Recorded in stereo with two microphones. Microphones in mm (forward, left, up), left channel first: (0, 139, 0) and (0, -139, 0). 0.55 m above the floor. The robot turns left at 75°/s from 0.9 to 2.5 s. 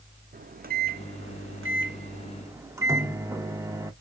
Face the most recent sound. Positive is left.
turn(degrees=-10)  # may be behind; listen again after turning